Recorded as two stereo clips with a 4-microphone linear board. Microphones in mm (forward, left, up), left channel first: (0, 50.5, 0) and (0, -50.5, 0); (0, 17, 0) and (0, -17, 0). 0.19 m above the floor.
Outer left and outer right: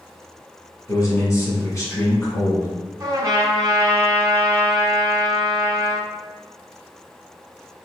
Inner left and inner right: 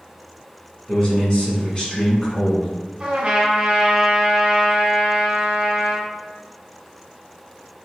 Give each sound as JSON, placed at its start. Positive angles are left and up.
{"t": 0.9, "sound": "a man speaking", "side_deg": 30, "distance_m": 1.5}
{"t": 3.0, "sound": "a trumpet", "side_deg": -30, "distance_m": 1.1}